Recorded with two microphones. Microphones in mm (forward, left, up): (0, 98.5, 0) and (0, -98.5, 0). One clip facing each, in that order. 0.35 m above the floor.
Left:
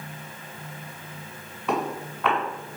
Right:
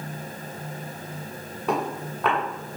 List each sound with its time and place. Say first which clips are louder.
1.7 s footsteps: right 1 dB; 50° right (ahead or behind), 2.5 m